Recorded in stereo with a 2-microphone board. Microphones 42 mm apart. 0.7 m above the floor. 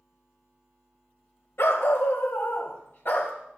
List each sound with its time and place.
1.6 s a dog barking: 80° left, 1.6 m; by 3.3 s 50° left (ahead or behind), 2 m